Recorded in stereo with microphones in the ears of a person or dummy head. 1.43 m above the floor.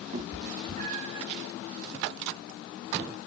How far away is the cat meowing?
About 1.2 m.